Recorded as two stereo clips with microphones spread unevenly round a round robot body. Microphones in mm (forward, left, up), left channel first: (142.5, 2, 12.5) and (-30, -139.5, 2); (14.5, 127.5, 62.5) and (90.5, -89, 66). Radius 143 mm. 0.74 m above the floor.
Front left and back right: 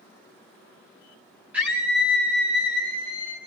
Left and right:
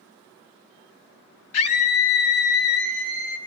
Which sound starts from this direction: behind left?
A scream, at 1.5 s.